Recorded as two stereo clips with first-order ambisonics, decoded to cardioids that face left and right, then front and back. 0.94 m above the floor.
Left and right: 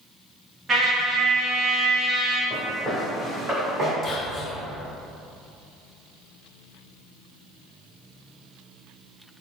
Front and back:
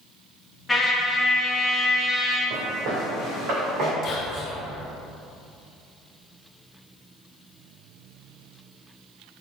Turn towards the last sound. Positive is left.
turn(degrees=35)